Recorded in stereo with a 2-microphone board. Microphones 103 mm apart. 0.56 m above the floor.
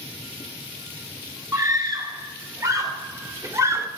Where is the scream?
35° right (ahead or behind), 3 m; by 3.9 s 25° right (ahead or behind), 1.4 m.